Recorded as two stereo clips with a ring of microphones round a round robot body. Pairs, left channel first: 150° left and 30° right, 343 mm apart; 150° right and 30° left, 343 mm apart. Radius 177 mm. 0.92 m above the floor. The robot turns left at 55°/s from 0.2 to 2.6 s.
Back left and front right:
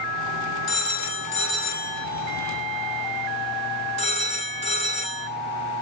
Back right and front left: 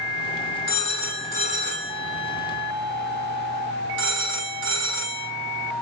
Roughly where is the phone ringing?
Behind left.